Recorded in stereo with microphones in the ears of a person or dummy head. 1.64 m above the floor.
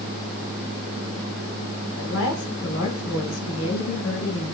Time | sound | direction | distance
2.0 | a woman speaking | 85° left | 4.5 m